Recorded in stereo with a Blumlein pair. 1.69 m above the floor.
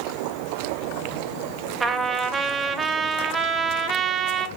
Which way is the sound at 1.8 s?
10° right.